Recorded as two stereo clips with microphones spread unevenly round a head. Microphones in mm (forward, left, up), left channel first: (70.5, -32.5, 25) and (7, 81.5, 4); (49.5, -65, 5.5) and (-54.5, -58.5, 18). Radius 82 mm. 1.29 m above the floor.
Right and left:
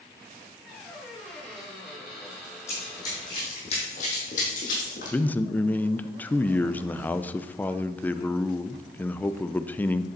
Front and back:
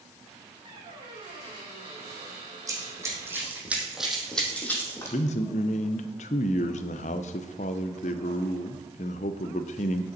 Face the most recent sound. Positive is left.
turn(degrees=20)